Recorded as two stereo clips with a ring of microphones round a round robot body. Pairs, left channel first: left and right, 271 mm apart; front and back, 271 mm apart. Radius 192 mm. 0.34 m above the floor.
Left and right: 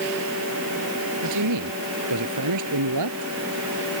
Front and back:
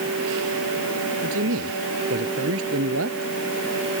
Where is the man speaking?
125° right.